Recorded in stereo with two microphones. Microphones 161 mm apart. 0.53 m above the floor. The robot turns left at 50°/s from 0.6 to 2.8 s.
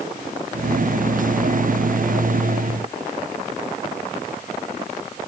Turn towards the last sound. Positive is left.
No sound to turn to.